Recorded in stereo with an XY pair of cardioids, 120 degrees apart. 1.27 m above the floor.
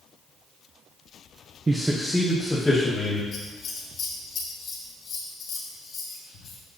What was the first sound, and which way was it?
A man speaking, 20° right.